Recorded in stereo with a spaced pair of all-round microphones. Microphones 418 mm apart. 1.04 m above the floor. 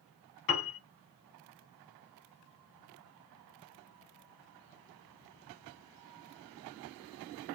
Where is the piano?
55° left (ahead or behind), 0.5 m.